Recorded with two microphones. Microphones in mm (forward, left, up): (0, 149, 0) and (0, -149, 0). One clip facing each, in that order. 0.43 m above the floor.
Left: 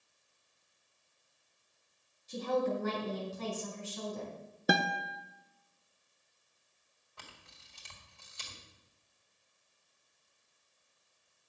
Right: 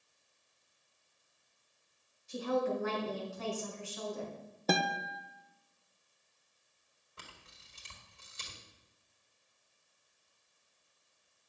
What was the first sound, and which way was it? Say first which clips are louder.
A woman speaking: left 1 dB; 45° left (ahead or behind).